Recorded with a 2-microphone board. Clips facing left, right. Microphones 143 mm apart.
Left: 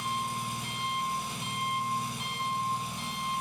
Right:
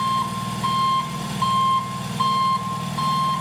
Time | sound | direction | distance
0.0 | an engine running | 85° right | 2 m